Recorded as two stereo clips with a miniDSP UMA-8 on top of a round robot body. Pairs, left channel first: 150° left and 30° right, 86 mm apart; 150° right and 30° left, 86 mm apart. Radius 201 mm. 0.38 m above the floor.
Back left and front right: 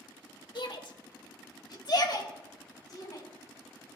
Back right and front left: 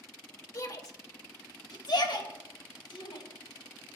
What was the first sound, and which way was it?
A shout, 165° left.